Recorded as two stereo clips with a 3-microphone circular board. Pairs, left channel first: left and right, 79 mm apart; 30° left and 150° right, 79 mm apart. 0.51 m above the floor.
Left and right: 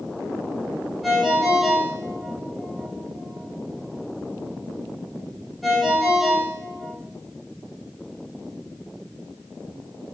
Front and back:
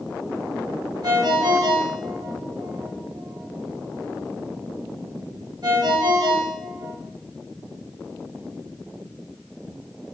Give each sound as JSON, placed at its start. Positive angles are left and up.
{"t": 1.0, "sound": "a ringtone", "azimuth_deg": 180, "distance_m": 1.1}